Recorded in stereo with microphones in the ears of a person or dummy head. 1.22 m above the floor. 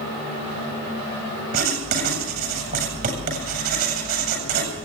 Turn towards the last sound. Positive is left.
turn(degrees=-45)  # may be behind; listen again after turning